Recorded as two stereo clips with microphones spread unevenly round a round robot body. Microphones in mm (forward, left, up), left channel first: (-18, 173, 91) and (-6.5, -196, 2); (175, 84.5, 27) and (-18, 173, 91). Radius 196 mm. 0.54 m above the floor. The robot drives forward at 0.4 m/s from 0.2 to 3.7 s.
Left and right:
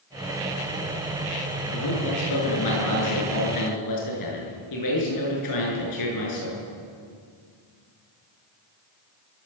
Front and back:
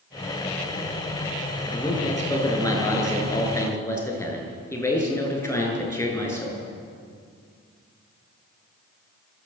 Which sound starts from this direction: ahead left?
A man speaking, at 1.7 s.